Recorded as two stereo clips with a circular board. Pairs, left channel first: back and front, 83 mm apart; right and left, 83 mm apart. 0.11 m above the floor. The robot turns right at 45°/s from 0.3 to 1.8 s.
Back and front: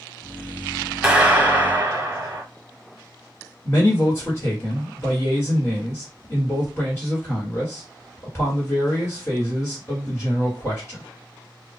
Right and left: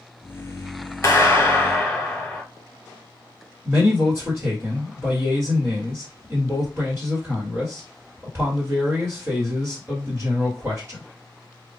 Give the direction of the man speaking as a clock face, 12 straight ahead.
7 o'clock.